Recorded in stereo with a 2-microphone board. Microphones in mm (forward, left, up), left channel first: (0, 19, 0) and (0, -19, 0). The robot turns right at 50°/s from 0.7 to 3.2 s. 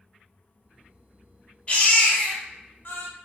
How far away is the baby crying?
About 0.6 m.